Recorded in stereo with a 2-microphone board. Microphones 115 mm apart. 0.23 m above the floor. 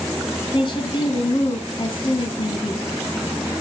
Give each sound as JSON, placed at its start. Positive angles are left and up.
{"t": 0.5, "sound": "a woman speaking", "side_deg": 45, "distance_m": 2.5}